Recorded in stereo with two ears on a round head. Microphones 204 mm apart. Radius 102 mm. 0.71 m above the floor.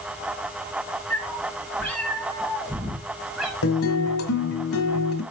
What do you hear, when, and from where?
1.1 s a cat meowing: 10° left (ahead or behind), 5.5 m; by 3.5 s centre (ahead or behind), 4 m
3.6 s a guitar: 65° left (ahead or behind), 1.9 m